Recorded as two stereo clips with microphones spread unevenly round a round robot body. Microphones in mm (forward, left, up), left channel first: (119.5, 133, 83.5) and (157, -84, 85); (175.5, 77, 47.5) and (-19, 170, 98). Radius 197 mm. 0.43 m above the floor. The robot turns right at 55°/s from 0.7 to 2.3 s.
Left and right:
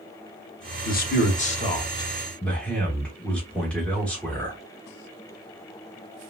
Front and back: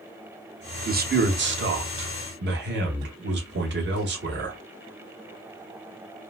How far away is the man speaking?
About 0.9 m.